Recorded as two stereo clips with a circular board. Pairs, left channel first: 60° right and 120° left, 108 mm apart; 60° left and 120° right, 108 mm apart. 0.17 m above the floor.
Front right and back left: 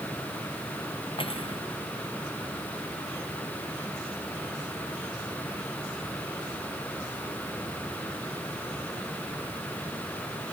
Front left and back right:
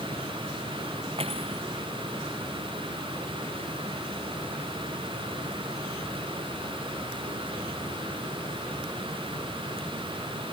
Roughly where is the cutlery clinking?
Right.